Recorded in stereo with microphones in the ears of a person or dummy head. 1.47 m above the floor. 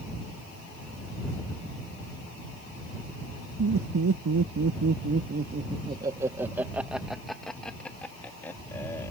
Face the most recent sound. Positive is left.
turn(degrees=15)  # may be behind; listen again after turning